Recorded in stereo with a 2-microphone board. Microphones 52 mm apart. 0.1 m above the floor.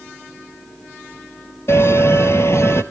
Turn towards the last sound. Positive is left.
turn(degrees=55)  # may be behind; listen again after turning